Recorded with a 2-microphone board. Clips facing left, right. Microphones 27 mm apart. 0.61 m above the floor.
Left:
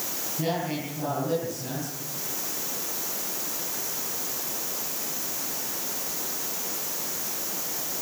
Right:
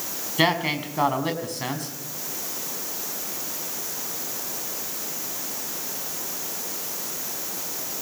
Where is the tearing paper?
I don't hear tearing paper.